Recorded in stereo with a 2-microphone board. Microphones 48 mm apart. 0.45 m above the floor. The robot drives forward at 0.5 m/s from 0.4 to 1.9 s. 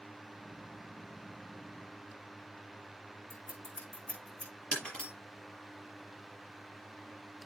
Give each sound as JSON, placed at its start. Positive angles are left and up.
{"t": 3.3, "sound": "scissors", "side_deg": 25, "distance_m": 6.5}
{"t": 4.7, "sound": "breaking glass", "side_deg": 20, "distance_m": 5.5}